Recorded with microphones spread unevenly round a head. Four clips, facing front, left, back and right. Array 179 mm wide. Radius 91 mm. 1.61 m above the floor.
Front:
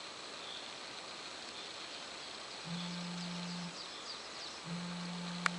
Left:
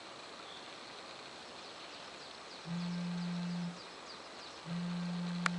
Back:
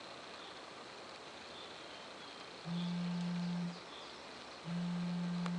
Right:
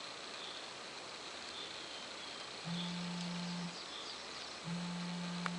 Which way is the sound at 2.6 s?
80° right.